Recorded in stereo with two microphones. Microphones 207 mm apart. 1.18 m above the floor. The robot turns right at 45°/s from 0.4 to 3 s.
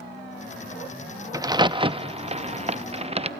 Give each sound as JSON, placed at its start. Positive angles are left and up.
{"t": 1.3, "sound": "a crack", "side_deg": -15, "distance_m": 0.6}